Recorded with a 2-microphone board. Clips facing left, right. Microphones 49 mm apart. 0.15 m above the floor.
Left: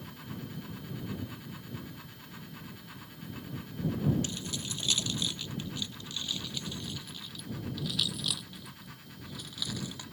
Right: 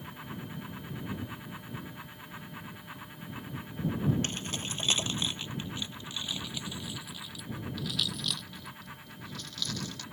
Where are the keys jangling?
45° right (ahead or behind); by 10.0 s 15° left (ahead or behind).